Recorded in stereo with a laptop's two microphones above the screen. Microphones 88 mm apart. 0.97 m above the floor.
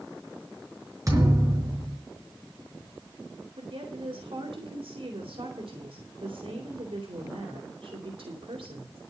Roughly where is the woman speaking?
Right.